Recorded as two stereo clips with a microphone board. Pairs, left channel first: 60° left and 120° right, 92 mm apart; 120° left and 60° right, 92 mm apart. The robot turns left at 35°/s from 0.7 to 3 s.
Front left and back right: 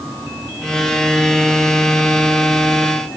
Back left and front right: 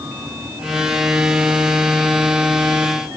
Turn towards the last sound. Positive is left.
No sound to turn to.